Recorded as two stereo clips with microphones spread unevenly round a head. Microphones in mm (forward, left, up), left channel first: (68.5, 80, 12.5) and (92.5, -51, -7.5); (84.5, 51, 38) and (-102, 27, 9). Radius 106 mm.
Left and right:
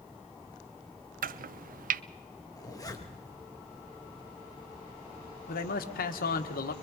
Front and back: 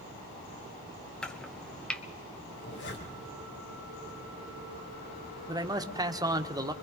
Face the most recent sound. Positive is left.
turn(degrees=115)